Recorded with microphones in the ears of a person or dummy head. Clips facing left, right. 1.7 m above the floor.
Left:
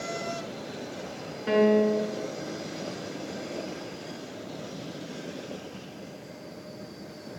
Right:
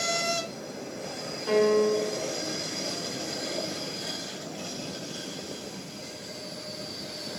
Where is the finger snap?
No finger snap in this recording.